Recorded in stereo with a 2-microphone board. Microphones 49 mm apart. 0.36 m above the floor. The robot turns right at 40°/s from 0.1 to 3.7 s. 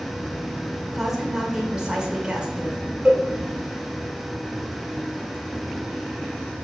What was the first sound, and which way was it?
A woman speaking, centre (ahead or behind).